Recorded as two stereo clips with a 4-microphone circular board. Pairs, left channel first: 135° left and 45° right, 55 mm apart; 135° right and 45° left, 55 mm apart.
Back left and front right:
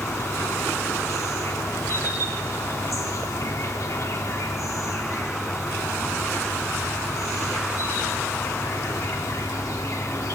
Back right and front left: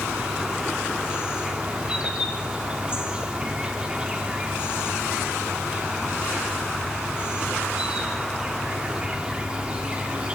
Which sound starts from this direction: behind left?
An insect, at 0.0 s.